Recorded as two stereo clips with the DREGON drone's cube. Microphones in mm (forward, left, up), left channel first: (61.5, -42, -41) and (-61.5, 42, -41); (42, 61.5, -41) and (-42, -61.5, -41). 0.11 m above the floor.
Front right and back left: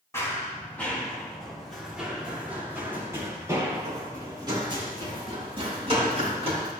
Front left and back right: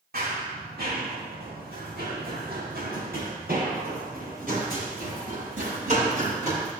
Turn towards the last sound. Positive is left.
turn(degrees=-165)